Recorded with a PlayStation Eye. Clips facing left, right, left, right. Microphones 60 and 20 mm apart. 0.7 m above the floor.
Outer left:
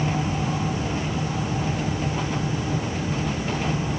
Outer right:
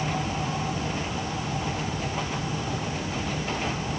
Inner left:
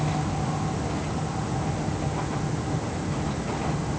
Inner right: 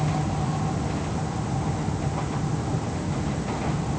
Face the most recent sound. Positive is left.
No sound to turn to.